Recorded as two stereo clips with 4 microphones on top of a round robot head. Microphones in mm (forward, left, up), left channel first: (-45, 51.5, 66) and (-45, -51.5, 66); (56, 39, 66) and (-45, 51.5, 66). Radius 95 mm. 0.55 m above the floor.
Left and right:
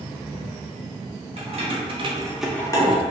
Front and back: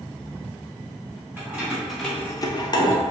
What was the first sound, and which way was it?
Keys jangling, 110° right.